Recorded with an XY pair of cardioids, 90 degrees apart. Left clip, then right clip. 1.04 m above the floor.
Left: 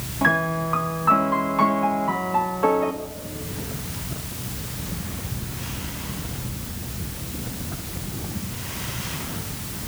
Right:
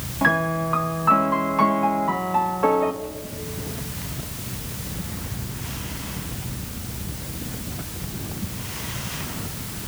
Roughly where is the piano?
Ahead.